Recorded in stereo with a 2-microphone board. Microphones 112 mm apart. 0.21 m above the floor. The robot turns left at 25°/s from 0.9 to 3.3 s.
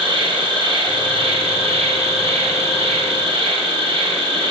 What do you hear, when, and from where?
0.0 s an insect: 60° right, 0.8 m; by 4.5 s 120° right, 0.8 m